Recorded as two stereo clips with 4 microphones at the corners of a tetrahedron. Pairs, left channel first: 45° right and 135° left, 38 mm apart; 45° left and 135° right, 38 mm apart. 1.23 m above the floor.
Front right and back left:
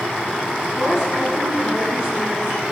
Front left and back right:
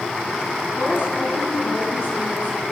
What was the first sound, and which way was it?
A woman speaking, 60° left.